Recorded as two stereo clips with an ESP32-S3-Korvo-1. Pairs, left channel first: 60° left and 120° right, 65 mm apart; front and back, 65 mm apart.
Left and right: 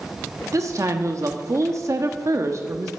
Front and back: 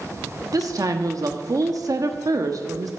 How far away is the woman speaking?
About 1.2 m.